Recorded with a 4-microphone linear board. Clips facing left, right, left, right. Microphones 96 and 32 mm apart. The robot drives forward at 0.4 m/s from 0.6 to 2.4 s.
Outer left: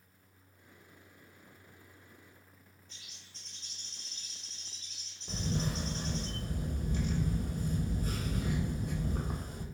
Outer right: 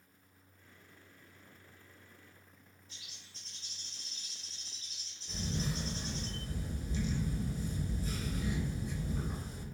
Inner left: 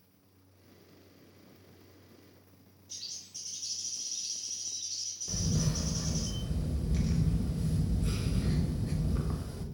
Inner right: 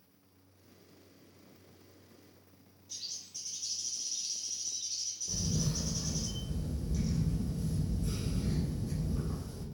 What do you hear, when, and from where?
2.9 s a bird: 5° right (ahead or behind), 1.6 m
5.3 s a camera shutter: 55° left (ahead or behind), 0.6 m